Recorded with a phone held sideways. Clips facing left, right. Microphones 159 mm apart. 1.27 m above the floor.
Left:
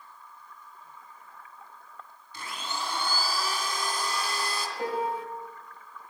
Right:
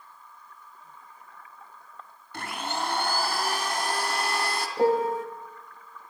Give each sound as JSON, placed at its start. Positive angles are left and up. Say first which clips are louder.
{"t": 2.3, "sound": "a blender", "louder": "right 5 dB", "side_deg": -65, "distance_m": 2.5}
{"t": 4.8, "sound": "a piano", "louder": "right 8 dB", "side_deg": -45, "distance_m": 2.0}